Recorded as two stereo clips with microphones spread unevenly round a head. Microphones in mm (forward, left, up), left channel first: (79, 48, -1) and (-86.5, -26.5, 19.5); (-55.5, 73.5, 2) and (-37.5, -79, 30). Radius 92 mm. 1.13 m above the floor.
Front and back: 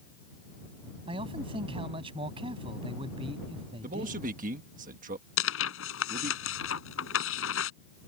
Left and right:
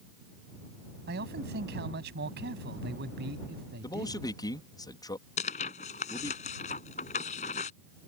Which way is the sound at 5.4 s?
40° left.